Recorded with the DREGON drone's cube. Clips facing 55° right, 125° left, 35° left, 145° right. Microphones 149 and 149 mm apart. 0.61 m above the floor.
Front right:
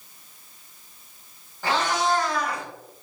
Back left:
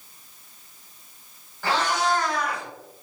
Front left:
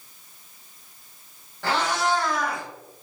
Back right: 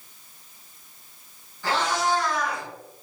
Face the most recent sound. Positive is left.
turn(degrees=-5)